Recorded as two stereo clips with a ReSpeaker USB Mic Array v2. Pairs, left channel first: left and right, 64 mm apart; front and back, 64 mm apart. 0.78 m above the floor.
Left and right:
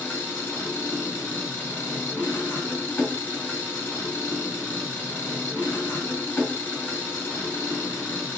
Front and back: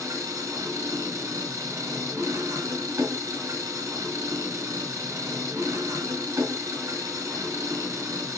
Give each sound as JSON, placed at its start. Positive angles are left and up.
{"t": 0.0, "sound": "an engine running", "azimuth_deg": 150, "distance_m": 4.0}